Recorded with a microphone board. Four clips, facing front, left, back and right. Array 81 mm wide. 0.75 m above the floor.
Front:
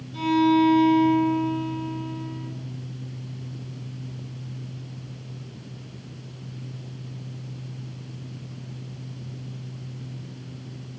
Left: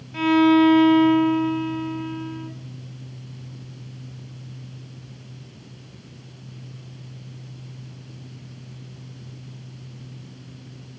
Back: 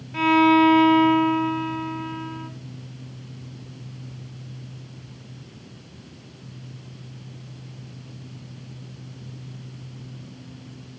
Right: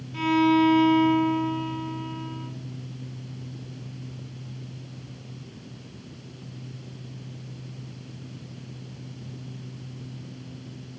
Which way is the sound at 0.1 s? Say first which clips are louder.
Left 4 dB, back 3 dB; 140° left.